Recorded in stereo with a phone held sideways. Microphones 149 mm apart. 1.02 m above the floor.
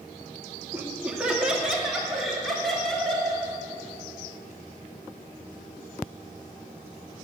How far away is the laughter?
About 1.7 m.